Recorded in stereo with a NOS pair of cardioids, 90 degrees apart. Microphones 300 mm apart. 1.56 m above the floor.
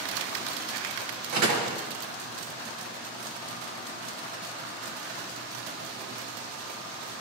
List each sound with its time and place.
1.3 s a door slam: 70° right, 1.7 m